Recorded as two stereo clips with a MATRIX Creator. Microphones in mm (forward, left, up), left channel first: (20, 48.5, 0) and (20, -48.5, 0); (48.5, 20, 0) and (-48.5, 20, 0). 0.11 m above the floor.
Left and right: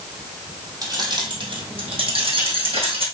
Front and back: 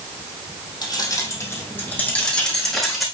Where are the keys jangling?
45° right, 3 m; by 3.0 s 90° right, 4.5 m.